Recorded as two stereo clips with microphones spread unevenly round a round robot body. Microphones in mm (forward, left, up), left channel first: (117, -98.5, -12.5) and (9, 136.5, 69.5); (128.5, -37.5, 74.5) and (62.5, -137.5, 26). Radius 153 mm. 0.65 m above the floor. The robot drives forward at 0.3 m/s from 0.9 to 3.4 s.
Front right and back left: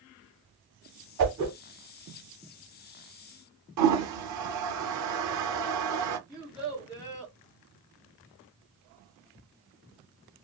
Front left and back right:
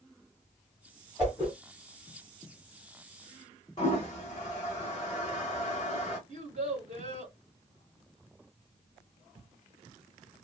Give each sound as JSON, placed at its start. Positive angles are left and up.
{"t": 1.2, "sound": "a whoosh", "azimuth_deg": 155, "distance_m": 1.4}
{"t": 3.8, "sound": "a toilet flushing", "azimuth_deg": 125, "distance_m": 0.7}
{"t": 6.3, "sound": "a child speaking", "azimuth_deg": -155, "distance_m": 1.6}